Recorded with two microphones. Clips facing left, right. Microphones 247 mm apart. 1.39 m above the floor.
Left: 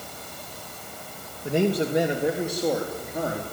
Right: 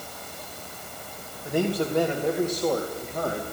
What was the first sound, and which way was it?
A man speaking, 25° left (ahead or behind).